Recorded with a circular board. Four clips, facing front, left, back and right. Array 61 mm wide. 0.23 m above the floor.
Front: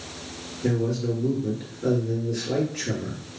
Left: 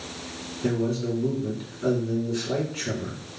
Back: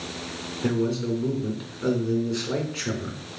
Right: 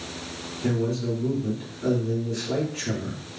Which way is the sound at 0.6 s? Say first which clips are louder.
Even, even; 175° left.